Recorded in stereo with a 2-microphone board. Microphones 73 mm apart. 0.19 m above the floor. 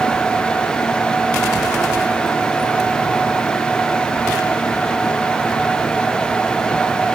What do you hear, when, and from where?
Only background noise.